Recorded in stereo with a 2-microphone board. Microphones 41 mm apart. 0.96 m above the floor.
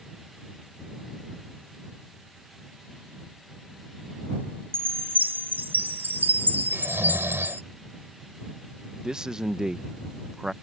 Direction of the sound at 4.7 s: 65° right (ahead or behind).